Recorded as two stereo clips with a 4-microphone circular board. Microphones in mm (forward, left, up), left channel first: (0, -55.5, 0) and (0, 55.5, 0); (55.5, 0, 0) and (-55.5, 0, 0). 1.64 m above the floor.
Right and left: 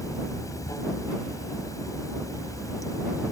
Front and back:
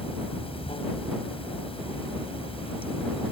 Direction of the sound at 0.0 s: 30° right.